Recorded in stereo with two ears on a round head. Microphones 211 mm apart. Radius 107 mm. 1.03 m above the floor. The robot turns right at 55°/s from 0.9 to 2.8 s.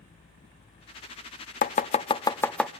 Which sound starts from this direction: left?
Chopping, at 1.6 s.